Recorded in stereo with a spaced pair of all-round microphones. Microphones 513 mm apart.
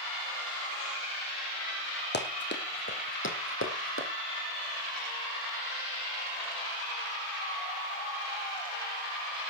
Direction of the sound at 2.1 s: 20° left (ahead or behind).